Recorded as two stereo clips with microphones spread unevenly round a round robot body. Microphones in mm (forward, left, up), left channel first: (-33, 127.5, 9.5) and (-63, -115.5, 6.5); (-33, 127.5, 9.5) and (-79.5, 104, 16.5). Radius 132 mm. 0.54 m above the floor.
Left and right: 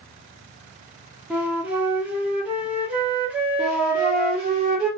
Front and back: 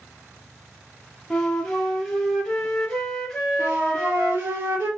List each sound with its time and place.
1.3 s a flute: 20° right, 0.8 m
3.6 s a flute: 150° right, 1.6 m